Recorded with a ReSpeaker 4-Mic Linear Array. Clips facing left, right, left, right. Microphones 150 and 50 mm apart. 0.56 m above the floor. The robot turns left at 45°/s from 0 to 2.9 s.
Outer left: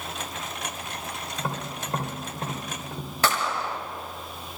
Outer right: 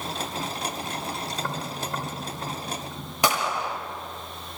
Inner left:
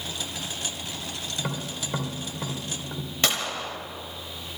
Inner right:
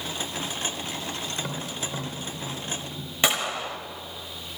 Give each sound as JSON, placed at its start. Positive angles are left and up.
{"t": 1.4, "sound": "tapping", "side_deg": 10, "distance_m": 2.0}
{"t": 3.2, "sound": "a gunshot", "side_deg": -15, "distance_m": 1.2}